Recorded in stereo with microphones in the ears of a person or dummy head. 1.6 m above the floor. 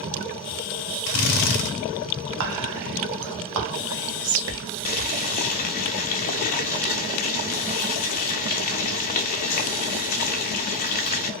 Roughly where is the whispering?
Right.